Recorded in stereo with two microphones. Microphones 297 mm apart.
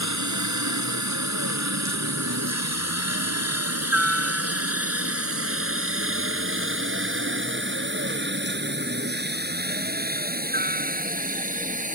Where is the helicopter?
70° right (ahead or behind); by 12.0 s 25° right (ahead or behind).